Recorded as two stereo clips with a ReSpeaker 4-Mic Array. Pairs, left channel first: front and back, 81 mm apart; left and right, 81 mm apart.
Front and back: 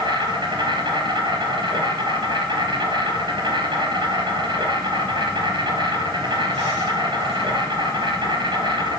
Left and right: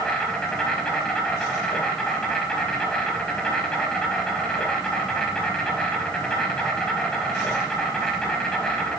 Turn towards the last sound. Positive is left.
turn(degrees=170)